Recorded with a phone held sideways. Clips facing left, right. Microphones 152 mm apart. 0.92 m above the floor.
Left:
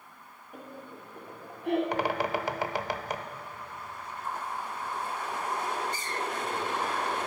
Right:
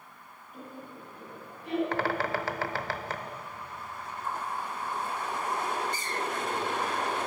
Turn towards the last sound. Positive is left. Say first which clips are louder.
# left 1 dB
turn(degrees=15)  # may be behind; listen again after turning